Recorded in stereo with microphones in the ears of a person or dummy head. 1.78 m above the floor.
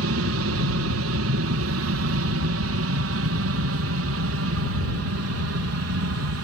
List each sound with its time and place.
0.0 s an aircraft: 60° right (ahead or behind); by 6.5 s 65° right (ahead or behind)